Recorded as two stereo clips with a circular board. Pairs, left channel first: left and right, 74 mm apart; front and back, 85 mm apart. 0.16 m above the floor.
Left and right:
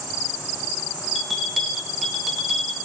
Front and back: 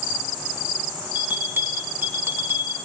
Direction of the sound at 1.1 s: 175° left.